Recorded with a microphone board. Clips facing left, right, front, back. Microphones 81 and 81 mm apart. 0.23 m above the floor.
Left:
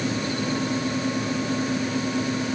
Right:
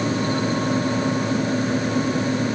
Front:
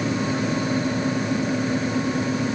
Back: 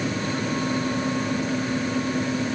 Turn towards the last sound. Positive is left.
No sound to turn to.